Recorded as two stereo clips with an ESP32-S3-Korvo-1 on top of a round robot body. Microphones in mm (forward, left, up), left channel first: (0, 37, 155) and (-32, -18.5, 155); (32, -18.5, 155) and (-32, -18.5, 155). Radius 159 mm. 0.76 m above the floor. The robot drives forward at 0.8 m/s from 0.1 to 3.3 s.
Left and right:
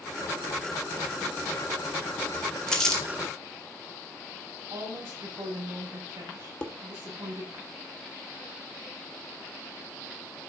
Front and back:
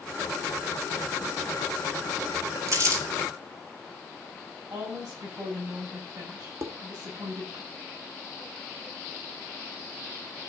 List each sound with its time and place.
2.7 s crumpling: 140° left, 3 m; by 3.0 s 145° left, 3.5 m
4.7 s a woman speaking: 165° right, 7.5 m
6.6 s dishes clattering: 135° left, 1.6 m